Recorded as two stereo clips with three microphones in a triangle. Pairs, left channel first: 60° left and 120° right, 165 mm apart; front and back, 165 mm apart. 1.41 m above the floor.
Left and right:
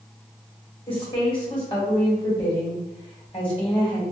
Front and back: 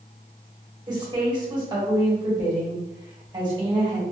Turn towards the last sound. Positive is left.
turn(degrees=120)